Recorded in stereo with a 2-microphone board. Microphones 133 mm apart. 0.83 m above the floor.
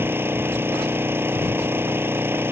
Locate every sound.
0.0 s an engine running: 15° right (ahead or behind)